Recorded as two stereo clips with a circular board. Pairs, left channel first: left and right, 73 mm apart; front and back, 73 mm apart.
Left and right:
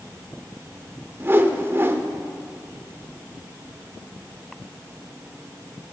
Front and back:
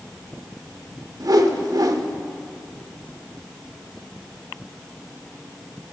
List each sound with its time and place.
1.2 s a whoosh: 150° right, 0.6 m